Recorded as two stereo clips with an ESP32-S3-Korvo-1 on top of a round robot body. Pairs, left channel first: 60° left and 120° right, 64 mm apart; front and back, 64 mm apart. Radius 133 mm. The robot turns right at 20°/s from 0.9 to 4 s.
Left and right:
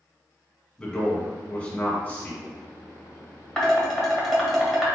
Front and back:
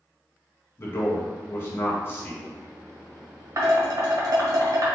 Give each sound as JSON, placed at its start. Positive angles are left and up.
{"t": 0.8, "sound": "a man speaking", "azimuth_deg": -10, "distance_m": 1.6}
{"t": 3.6, "sound": "dishes clattering", "azimuth_deg": 145, "distance_m": 1.7}